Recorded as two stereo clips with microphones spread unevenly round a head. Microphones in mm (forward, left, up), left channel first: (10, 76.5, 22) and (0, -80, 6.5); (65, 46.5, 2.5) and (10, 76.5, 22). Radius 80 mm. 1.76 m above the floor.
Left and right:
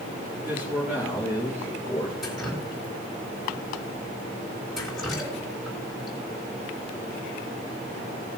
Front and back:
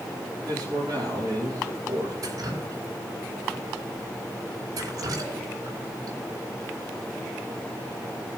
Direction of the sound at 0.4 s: 175° right.